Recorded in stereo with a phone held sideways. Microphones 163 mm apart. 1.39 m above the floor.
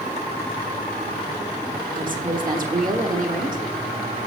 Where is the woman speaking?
55° right (ahead or behind), 1.1 m.